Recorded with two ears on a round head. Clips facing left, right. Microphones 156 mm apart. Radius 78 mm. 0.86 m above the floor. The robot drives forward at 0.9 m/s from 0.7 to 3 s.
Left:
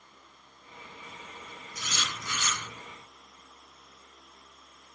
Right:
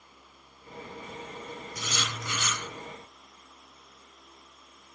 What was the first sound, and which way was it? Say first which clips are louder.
Writing: right 1 dB; 70° right (ahead or behind).